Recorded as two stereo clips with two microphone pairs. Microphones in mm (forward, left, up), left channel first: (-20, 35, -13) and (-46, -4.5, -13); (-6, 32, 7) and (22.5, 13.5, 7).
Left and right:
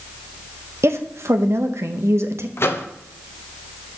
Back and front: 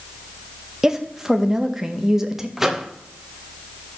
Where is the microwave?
50° left, 0.6 m.